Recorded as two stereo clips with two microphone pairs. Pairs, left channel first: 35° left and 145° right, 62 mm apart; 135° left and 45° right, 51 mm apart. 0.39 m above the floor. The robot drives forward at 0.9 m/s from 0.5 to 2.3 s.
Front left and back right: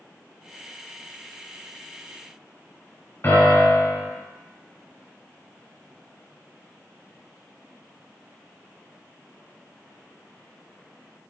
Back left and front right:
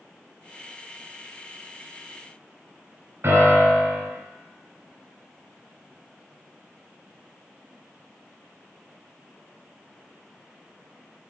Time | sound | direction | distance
3.2 | a piano | 15° right | 2 m